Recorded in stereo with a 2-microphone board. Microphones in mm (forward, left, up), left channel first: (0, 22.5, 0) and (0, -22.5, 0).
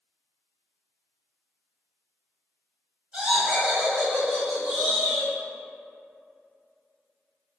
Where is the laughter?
20° right (ahead or behind), 1.8 m; by 5.3 s 5° right (ahead or behind), 1.8 m.